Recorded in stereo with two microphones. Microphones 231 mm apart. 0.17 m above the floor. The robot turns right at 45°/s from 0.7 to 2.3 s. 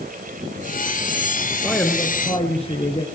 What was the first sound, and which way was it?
A man speaking, straight ahead.